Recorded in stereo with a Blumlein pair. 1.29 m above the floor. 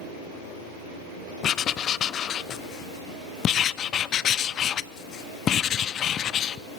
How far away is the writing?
About 0.6 m.